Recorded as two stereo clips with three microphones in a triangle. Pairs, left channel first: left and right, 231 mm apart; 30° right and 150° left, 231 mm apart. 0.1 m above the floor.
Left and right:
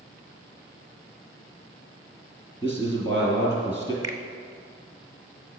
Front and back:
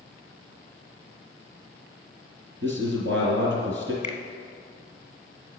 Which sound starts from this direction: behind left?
A man speaking, at 2.6 s.